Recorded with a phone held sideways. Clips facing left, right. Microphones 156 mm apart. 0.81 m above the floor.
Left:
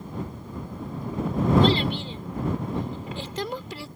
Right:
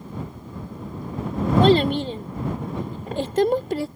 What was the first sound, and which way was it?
A child speaking, 50° right (ahead or behind).